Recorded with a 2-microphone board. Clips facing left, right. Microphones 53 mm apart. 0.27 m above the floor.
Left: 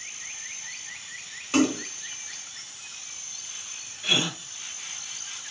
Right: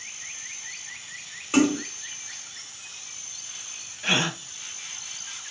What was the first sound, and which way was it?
A splash, 10° right (ahead or behind).